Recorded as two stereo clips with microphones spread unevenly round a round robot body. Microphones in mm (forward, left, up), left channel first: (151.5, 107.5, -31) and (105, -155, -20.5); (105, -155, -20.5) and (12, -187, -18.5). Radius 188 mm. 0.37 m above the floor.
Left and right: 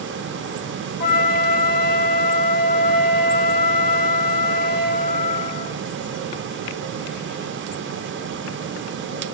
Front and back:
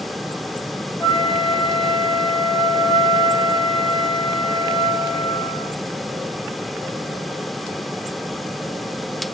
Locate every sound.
1.0 s a flute: 90° left, 1.1 m